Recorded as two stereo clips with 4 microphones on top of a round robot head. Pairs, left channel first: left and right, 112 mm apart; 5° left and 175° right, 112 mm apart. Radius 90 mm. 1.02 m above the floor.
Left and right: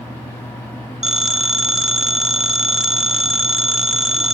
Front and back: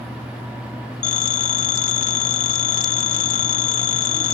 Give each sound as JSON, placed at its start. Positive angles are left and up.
{"t": 1.0, "sound": "a phone ringing", "azimuth_deg": -5}